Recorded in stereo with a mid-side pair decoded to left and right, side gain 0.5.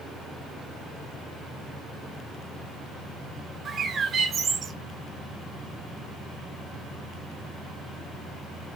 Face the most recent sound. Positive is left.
turn(degrees=-40)